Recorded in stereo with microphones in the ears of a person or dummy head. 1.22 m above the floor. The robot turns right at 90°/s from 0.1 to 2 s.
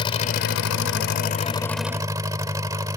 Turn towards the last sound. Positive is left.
turn(degrees=-165)